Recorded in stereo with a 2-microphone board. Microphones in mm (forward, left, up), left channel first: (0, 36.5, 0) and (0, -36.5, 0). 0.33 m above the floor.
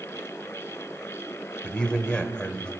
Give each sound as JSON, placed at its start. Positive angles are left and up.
{"t": 1.6, "sound": "a man speaking", "side_deg": 15, "distance_m": 1.1}